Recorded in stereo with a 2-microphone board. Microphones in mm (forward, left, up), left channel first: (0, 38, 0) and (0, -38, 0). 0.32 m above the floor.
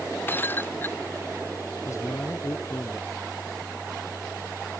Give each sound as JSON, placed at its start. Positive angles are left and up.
{"t": 0.3, "sound": "breaking glass", "side_deg": 25}
{"t": 1.9, "sound": "a man speaking", "side_deg": 40}